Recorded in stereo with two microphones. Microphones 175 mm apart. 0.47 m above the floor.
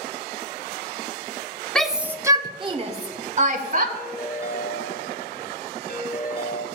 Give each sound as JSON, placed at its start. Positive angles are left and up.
{"t": 1.8, "sound": "a shout", "side_deg": 5, "distance_m": 0.8}
{"t": 4.0, "sound": "a ringtone", "side_deg": 60, "distance_m": 1.3}